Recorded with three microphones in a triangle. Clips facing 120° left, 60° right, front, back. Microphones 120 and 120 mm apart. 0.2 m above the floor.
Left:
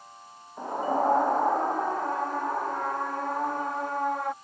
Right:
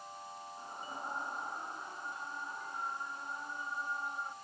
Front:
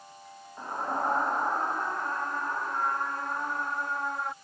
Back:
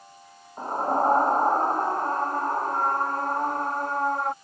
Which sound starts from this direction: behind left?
A scream, at 0.6 s.